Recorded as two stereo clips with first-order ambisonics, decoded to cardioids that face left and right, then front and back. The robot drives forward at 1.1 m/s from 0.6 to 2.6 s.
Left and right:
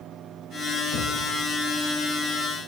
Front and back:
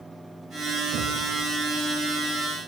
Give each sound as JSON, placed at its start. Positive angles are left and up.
{"t": 0.9, "sound": "knocking", "azimuth_deg": 125, "distance_m": 4.5}